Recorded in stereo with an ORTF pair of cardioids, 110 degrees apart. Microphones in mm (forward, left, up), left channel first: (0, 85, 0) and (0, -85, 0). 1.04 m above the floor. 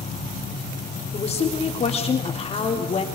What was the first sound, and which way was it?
An insect, 40° left.